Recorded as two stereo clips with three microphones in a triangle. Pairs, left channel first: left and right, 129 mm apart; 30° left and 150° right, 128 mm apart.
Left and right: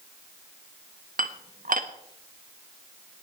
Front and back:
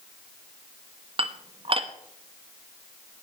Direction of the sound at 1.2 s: 100° right.